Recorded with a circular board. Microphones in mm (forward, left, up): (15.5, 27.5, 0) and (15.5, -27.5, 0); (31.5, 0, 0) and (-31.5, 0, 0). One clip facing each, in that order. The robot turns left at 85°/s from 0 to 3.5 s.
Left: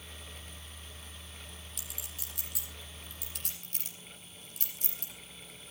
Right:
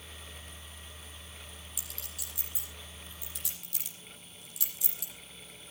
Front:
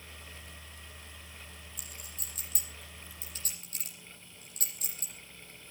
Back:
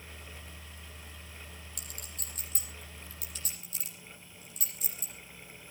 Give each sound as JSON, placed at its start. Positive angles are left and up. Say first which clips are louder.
{"t": 1.8, "sound": "a clink", "louder": "even, back 1 dB", "azimuth_deg": -175, "distance_m": 7.5}